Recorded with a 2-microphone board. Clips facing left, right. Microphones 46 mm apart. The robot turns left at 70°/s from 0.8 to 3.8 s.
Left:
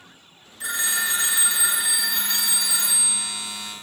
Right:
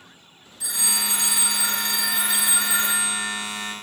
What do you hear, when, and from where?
0.6 s a phone ringing: 90° left, 1.1 m; by 3.7 s 115° right, 1.1 m